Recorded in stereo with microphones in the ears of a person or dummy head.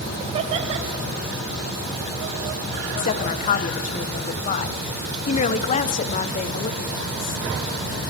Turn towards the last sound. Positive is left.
turn(degrees=40)  # may be behind; listen again after turning